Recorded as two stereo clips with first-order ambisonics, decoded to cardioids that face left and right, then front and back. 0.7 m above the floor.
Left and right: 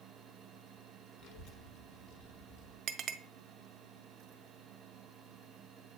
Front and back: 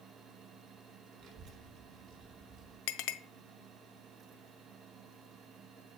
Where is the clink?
30° right, 0.5 m.